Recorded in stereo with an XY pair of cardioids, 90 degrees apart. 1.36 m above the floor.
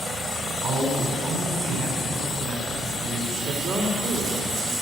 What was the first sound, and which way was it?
A man speaking, 65° right.